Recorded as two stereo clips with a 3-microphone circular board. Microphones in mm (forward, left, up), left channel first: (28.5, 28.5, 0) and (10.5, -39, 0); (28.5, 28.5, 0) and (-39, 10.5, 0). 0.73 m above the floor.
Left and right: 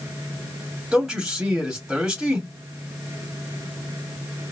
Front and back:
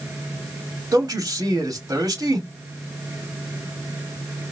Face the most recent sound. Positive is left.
turn(degrees=175)